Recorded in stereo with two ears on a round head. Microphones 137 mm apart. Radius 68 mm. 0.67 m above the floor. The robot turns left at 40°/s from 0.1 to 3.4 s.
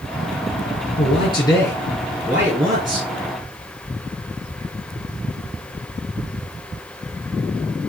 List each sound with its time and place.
1.0 s a man speaking: 45° left, 6.5 m; by 3.1 s 40° right, 6.5 m